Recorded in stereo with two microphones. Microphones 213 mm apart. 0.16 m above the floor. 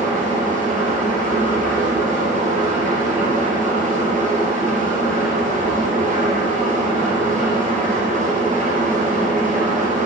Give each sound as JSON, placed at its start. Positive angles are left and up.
{"t": 0.0, "sound": "an engine running", "side_deg": -35, "distance_m": 1.8}